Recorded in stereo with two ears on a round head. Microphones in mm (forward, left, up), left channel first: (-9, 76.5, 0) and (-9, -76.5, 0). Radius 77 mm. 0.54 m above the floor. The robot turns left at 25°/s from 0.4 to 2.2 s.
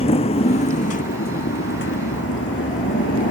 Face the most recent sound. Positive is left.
turn(degrees=100)